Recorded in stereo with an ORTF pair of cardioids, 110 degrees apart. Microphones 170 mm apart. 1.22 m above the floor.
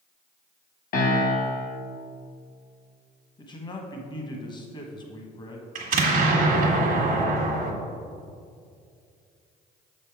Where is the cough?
No cough in this recording.